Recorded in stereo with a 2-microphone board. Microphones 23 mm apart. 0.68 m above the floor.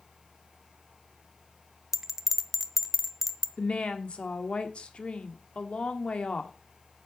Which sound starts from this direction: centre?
A bell, at 1.9 s.